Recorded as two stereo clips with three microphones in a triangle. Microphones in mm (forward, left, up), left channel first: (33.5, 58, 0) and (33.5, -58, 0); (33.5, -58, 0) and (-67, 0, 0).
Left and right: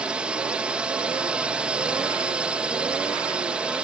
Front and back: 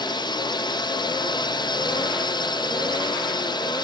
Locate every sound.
0.0 s a drone: 15° right